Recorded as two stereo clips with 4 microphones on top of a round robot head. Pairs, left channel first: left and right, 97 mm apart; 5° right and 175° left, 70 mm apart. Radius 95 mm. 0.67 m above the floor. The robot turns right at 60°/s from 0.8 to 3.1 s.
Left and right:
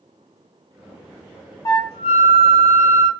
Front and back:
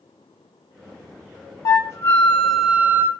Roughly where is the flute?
Ahead left.